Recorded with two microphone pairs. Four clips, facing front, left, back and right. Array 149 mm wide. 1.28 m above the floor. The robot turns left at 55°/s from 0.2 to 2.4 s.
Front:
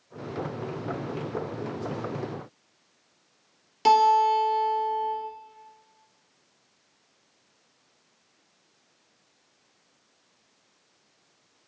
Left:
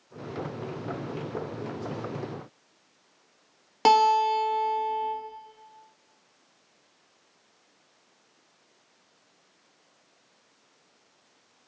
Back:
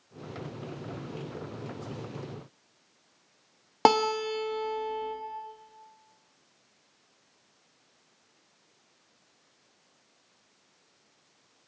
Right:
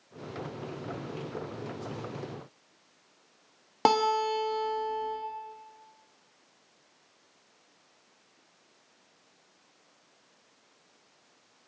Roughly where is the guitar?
Behind.